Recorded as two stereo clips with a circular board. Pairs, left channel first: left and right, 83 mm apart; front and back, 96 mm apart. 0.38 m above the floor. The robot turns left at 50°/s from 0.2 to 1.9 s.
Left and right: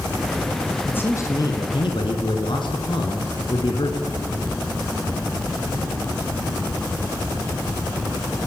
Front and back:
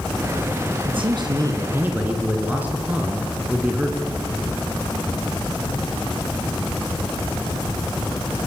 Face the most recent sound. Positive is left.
turn(degrees=105)